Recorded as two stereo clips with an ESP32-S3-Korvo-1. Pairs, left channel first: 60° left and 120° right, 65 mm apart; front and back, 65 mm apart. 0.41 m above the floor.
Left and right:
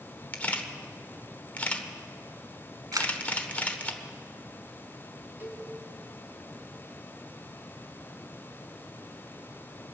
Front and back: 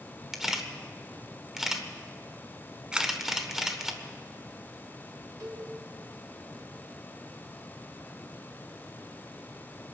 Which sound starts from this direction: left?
A camera shutter, at 0.3 s.